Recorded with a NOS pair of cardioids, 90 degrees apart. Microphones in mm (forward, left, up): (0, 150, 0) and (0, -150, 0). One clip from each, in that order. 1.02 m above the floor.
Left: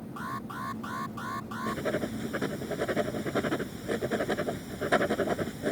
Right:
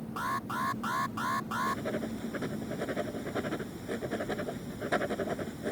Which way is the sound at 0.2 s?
35° right.